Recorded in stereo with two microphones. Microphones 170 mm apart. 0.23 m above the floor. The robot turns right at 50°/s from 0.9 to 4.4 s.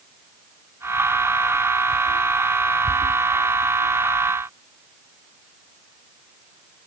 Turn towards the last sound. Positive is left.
No sound to turn to.